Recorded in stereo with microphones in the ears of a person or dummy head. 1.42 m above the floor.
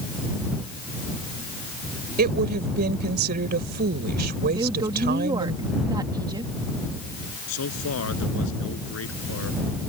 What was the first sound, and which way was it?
A woman speaking, 45° right (ahead or behind).